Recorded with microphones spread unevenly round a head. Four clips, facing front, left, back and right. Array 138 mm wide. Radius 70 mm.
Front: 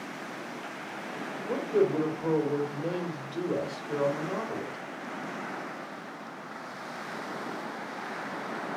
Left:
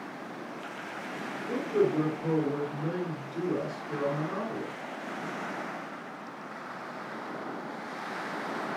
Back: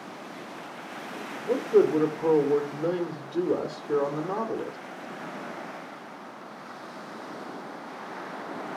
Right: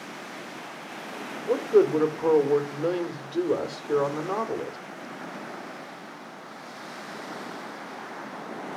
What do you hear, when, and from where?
1.5 s a man speaking: 145° right, 2.5 m